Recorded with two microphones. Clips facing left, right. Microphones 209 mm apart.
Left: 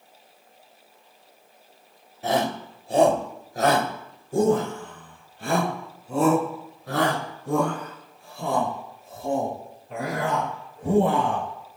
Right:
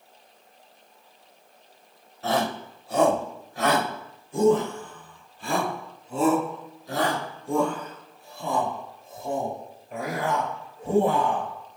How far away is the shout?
About 2.5 m.